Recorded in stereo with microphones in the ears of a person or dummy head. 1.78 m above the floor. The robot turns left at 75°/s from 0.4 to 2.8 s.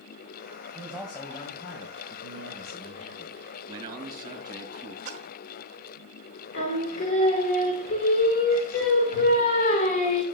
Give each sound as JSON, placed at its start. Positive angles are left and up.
{"t": 0.8, "sound": "a man speaking", "azimuth_deg": -160, "distance_m": 1.4}
{"t": 3.7, "sound": "a man speaking", "side_deg": -25, "distance_m": 3.0}
{"t": 5.0, "sound": "a splash", "side_deg": -40, "distance_m": 1.3}
{"t": 6.5, "sound": "singing", "side_deg": 40, "distance_m": 1.6}